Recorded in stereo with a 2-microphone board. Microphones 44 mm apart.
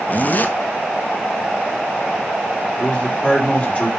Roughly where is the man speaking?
Left.